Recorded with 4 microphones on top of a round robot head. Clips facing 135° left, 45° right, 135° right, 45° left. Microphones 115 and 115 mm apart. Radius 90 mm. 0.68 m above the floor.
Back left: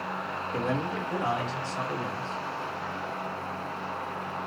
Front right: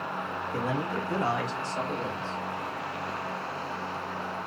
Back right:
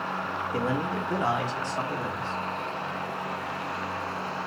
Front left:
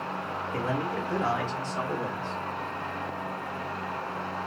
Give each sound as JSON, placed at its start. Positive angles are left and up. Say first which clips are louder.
{"t": 0.5, "sound": "a man speaking", "louder": "back left 1 dB, back right 1 dB", "azimuth_deg": -135, "distance_m": 1.2}